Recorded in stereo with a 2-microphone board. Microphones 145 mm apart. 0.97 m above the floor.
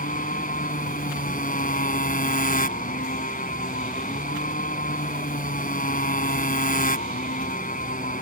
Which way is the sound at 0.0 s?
75° left (ahead or behind).